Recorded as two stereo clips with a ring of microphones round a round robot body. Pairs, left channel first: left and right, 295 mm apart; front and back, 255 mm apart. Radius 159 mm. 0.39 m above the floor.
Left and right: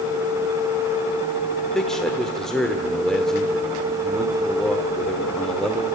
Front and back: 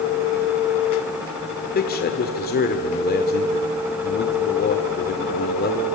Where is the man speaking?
5° left, 1.4 m.